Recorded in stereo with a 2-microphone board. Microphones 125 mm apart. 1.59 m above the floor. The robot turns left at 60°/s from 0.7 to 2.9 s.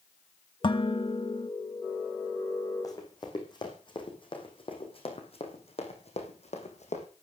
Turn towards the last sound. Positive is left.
turn(degrees=65)  # may be behind; listen again after turning